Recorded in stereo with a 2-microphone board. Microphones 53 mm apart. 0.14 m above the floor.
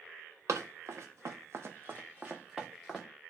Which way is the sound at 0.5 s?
75° right (ahead or behind).